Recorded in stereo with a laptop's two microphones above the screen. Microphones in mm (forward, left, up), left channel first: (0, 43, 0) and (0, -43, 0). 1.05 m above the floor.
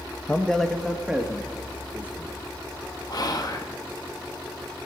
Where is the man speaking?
20° left (ahead or behind), 0.7 m; by 2.3 s 15° right (ahead or behind), 2 m.